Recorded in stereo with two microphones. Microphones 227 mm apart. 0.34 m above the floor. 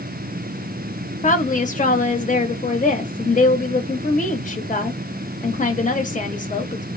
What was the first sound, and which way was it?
A woman speaking, 35° left (ahead or behind).